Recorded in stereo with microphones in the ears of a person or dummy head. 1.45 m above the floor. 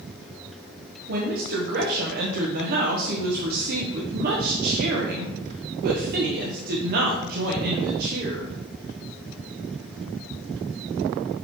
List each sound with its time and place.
1.1 s a woman speaking: 50° right (ahead or behind), 1.0 m